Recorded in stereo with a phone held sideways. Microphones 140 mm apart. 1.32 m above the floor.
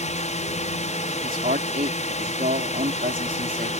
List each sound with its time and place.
0.0 s a drone: 55° left (ahead or behind)
1.2 s a man speaking: 85° right